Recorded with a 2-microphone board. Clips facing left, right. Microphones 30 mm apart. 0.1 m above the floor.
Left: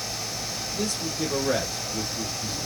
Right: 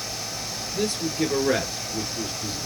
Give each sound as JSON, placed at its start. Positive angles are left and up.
{"t": 0.7, "sound": "a man speaking", "side_deg": -35, "distance_m": 1.3}